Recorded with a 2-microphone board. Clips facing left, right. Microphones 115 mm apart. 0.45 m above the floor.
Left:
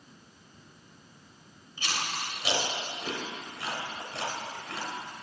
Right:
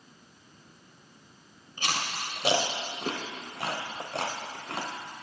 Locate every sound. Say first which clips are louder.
1.8 s chewing: right 2 dB; 55° right (ahead or behind), 0.7 m